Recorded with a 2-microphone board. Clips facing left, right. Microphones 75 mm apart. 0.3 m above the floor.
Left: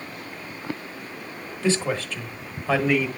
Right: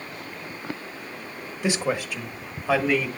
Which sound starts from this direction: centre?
A man speaking, at 1.6 s.